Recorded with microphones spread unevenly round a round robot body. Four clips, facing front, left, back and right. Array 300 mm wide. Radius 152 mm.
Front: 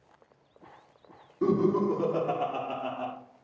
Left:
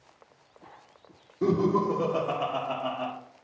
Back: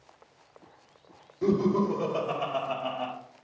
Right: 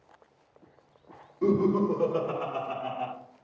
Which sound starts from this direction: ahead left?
Laughter, at 1.4 s.